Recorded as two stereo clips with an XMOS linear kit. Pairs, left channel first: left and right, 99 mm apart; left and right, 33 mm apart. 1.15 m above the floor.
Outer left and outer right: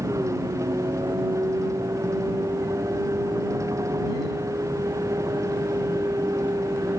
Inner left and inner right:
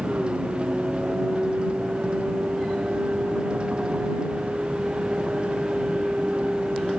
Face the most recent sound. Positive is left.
turn(degrees=-30)  # may be behind; listen again after turning